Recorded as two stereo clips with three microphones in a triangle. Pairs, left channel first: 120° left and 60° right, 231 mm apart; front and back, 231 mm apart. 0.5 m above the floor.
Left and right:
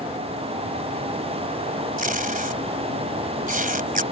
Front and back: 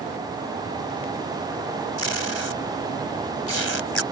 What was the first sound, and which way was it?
Tape being pulled, 10° right.